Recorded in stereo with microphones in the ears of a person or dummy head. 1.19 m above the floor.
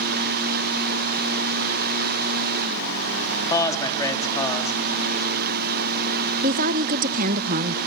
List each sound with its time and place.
3.5 s a man speaking: 20° left (ahead or behind), 2 m
6.4 s a woman speaking: 45° right (ahead or behind), 0.7 m